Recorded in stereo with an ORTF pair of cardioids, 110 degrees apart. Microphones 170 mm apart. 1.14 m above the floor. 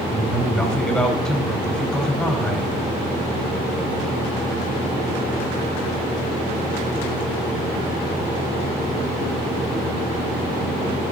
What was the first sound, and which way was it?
A man speaking, straight ahead.